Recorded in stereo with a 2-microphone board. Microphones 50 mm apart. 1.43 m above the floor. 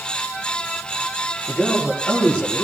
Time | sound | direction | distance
1.5 | a man speaking | 25° left (ahead or behind) | 9 m